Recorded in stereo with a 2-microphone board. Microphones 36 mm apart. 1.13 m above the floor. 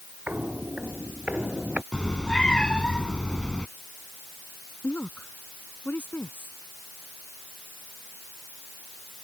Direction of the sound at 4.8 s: 65° left (ahead or behind).